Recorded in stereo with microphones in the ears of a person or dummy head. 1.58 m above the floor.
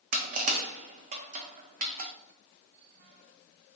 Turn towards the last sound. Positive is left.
turn(degrees=-45)  # may be behind; listen again after turning